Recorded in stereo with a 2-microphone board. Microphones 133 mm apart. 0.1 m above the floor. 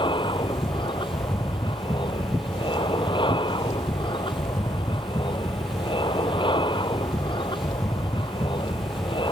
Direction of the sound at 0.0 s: 35° left (ahead or behind).